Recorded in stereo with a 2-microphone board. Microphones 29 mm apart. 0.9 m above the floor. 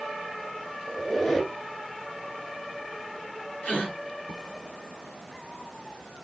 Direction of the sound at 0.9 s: 20° left (ahead or behind).